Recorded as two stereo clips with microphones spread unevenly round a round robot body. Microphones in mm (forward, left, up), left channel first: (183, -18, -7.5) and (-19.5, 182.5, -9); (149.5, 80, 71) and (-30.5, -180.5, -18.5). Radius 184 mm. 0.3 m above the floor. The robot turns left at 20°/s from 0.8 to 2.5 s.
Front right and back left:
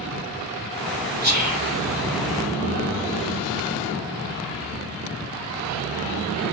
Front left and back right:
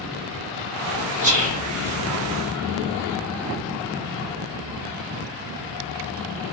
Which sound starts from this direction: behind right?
Whispering, at 1.2 s.